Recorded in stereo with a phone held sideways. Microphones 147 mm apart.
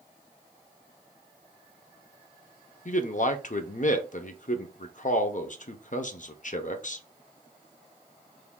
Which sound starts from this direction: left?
A man speaking, at 2.9 s.